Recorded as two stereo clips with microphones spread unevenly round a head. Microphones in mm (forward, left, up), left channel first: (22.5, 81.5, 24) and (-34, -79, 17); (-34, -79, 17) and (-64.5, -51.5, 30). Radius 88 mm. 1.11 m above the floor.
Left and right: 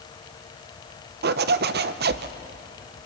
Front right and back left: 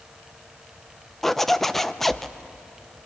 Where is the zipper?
115° right, 0.6 m.